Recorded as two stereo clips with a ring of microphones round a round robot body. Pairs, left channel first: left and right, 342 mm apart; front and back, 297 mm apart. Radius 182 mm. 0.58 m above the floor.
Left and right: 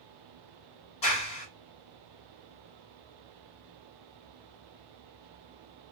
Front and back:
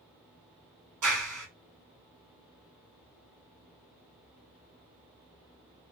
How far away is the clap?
About 2 m.